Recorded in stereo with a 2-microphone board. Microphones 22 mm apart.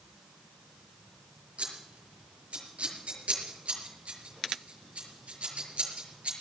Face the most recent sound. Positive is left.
turn(degrees=-75)  # may be behind; listen again after turning